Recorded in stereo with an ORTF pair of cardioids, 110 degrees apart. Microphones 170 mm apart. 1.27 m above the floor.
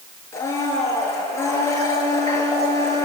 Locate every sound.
0.3 s a blender: 15° left, 8 m